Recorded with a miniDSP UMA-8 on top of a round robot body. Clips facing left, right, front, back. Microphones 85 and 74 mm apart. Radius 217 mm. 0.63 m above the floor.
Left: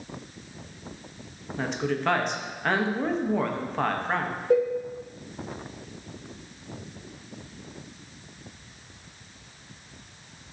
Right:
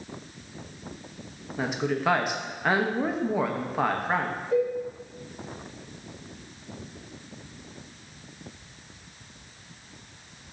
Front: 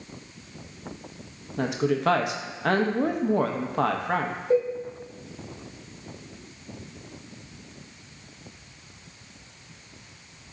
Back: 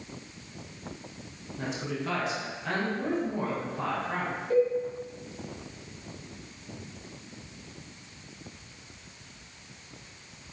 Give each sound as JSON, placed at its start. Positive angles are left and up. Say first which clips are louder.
{"t": 1.6, "sound": "a woman speaking", "louder": "right 1 dB, front 9 dB", "azimuth_deg": -10, "distance_m": 0.7}
{"t": 4.5, "sound": "a cowbell", "louder": "left 3 dB, front 1 dB", "azimuth_deg": 60, "distance_m": 0.7}